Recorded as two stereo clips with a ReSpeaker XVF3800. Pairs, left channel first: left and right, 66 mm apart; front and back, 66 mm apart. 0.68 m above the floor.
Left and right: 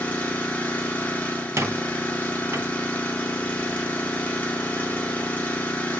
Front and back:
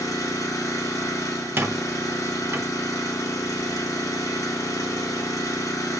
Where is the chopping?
I don't hear chopping.